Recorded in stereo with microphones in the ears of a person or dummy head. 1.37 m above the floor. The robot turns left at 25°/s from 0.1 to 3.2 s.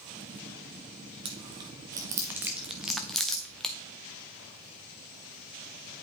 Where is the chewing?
25° right (ahead or behind), 0.5 m; by 3.7 s 5° left (ahead or behind), 0.5 m.